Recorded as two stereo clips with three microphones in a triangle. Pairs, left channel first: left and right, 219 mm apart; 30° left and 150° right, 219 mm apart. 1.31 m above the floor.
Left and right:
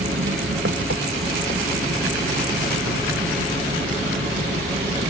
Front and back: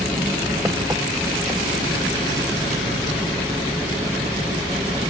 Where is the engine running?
75° right.